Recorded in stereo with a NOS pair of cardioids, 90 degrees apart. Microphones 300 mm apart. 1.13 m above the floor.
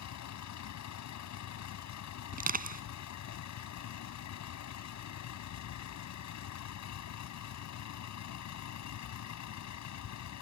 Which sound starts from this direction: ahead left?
A vehicle, at 0.0 s.